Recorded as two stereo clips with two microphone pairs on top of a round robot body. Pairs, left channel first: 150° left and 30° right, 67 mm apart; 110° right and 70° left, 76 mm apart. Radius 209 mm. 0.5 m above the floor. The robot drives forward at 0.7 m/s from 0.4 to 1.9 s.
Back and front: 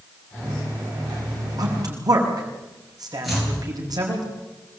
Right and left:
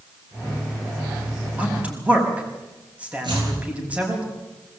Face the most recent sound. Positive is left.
turn(degrees=60)